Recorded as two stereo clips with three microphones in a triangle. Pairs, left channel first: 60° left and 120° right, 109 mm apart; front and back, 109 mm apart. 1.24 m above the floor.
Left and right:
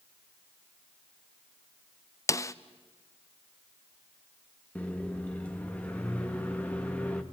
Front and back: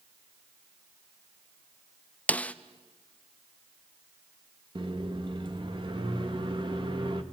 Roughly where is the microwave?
Behind left.